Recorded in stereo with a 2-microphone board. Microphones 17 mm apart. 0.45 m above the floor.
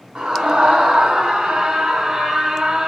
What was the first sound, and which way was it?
A scream, 75° right (ahead or behind).